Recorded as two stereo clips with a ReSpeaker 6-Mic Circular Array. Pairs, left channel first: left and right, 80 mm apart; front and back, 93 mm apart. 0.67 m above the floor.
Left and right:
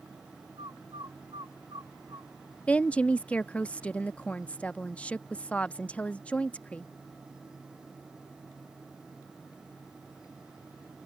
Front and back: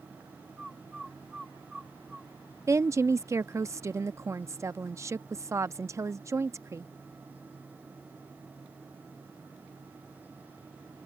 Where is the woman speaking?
150° left.